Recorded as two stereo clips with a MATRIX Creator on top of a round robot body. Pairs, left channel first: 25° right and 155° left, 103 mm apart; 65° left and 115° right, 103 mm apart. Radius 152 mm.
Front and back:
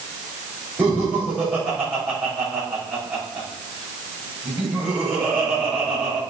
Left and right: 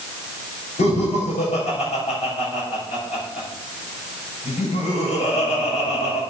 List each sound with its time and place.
0.8 s laughter: 65° left, 8 m